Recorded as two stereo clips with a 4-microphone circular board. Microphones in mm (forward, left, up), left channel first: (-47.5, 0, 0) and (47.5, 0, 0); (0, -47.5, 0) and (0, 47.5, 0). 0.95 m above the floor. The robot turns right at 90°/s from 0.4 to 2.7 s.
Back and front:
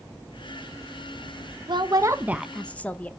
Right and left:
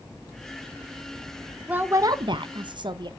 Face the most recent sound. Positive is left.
turn(degrees=110)